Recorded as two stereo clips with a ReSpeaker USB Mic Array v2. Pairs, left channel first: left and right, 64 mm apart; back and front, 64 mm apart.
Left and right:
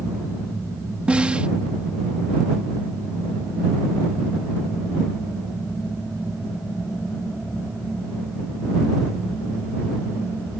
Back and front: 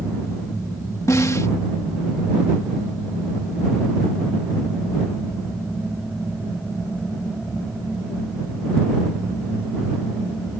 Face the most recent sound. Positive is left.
turn(degrees=-155)